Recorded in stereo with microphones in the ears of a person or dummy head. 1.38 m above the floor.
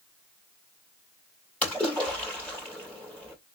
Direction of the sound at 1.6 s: 10° left (ahead or behind).